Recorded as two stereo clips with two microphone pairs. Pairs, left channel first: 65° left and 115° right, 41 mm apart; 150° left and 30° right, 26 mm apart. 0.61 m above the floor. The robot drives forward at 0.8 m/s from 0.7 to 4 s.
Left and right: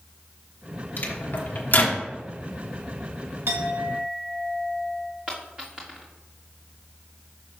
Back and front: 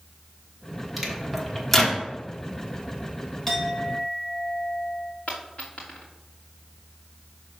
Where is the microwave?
45° left, 1.4 m; by 2.0 s 90° left, 1.2 m.